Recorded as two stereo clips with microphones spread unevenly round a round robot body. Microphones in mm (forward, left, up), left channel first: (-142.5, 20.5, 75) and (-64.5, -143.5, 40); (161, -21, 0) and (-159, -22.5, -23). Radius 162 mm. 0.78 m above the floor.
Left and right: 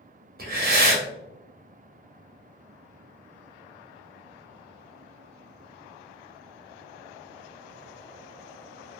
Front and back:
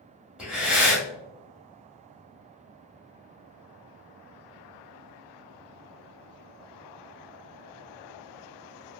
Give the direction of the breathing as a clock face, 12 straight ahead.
3 o'clock.